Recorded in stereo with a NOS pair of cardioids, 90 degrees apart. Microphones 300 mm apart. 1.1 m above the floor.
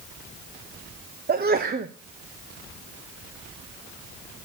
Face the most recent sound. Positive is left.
turn(degrees=-30)